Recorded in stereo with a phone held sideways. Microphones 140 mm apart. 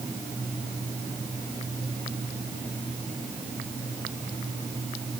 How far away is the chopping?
No chopping in this recording.